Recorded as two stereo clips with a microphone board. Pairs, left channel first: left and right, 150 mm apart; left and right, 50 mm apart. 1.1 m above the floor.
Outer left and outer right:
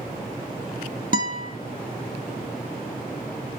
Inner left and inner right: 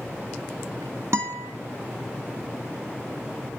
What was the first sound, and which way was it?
A guitar, 60° right (ahead or behind).